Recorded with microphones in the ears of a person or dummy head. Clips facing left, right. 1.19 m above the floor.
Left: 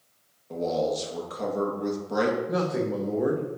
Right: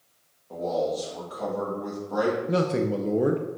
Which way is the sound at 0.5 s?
35° left (ahead or behind).